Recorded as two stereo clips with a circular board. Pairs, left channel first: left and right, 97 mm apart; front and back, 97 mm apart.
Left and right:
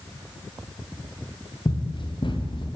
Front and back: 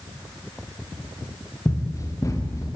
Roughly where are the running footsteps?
Ahead left.